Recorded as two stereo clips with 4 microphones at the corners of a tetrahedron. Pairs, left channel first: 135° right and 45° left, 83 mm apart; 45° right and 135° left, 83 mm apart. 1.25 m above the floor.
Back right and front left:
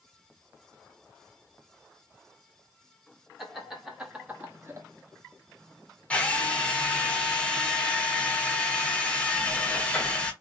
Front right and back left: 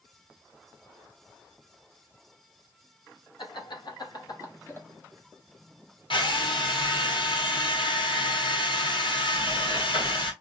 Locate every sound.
3.4 s laughter: 40° right, 1.4 m; by 4.9 s 5° left, 0.7 m
6.1 s a drill: 60° right, 0.9 m